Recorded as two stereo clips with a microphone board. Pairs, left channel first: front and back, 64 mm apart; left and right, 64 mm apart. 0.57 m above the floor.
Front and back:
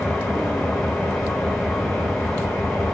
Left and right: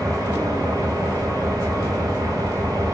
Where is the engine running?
90° right, 2.5 m.